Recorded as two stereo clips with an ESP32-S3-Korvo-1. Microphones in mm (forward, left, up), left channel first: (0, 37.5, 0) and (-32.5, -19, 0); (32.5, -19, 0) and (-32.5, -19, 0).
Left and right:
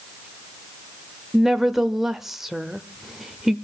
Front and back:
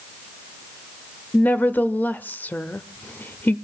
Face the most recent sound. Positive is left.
turn(degrees=-40)